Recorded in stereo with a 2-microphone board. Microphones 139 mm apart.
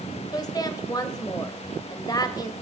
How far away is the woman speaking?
About 1.0 m.